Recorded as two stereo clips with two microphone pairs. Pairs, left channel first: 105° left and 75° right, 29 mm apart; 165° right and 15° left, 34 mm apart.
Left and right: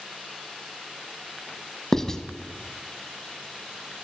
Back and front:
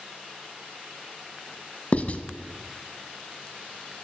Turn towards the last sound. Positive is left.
turn(degrees=170)